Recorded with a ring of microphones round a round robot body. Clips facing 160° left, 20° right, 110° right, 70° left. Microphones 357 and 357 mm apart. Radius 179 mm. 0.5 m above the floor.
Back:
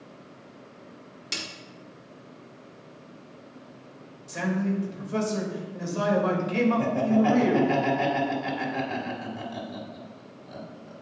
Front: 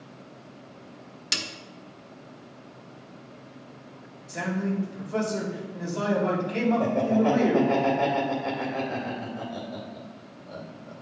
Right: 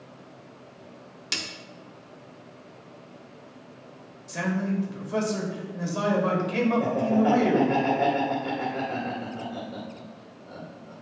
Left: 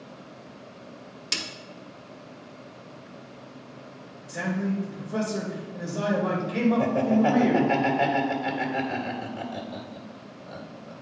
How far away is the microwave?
I don't hear a microwave.